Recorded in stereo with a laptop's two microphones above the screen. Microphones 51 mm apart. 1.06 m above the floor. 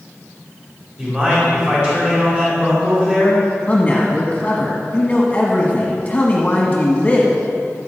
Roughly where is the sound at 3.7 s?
Centre.